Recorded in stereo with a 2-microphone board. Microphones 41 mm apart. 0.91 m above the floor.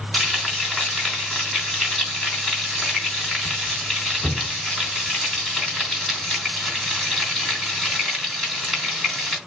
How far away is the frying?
About 3 m.